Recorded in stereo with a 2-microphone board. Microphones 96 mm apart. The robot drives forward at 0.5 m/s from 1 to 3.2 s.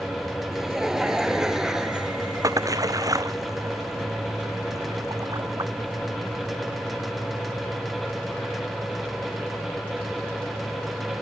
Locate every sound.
0.5 s laughter: 5° right (ahead or behind)
2.4 s a splash: 35° right (ahead or behind)